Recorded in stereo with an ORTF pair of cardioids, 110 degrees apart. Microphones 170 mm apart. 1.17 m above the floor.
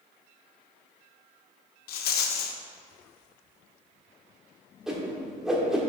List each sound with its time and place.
1.9 s a rattle: 70° left, 0.8 m
4.9 s a whoosh: 5° right, 1.5 m